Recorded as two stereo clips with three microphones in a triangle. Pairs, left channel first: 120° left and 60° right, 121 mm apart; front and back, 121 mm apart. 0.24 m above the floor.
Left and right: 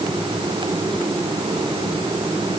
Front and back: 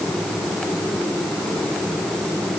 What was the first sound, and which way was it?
Only background noise.